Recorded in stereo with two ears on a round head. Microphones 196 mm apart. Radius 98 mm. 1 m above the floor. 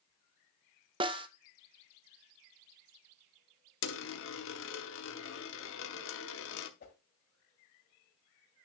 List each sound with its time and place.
1.0 s a snare drum: 25° right (ahead or behind), 0.6 m
3.8 s a dropped coin: 65° left (ahead or behind), 1.0 m
6.8 s a whoosh: 45° left (ahead or behind), 2 m